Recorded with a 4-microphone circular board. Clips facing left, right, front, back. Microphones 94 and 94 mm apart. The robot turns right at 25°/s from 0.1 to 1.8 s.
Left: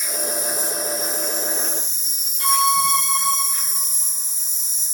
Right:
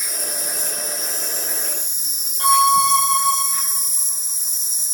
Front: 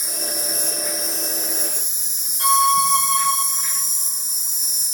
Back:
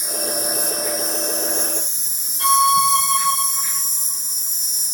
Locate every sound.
0.0 s an insect: 115° right, 1.9 m; by 5.0 s 70° right, 1.9 m
2.4 s a violin: 55° right, 4 m